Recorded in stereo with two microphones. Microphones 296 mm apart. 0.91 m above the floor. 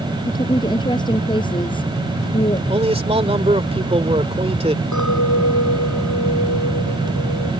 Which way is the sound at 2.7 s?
20° right (ahead or behind).